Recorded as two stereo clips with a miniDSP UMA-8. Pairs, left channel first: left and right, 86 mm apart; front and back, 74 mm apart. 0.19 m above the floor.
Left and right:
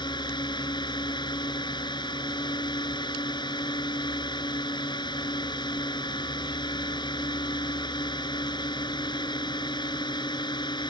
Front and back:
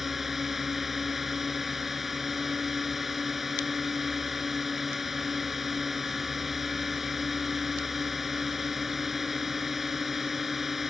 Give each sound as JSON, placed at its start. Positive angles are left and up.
{"t": 0.0, "sound": "a drone", "azimuth_deg": 95}